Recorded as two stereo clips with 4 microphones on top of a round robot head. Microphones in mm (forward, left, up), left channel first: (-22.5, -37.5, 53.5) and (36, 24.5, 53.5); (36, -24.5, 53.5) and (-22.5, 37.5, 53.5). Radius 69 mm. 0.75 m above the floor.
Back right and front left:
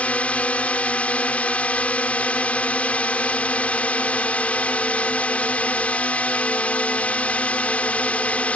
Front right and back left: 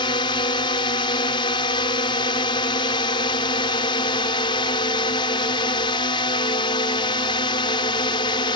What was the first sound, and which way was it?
A drone, 60° right.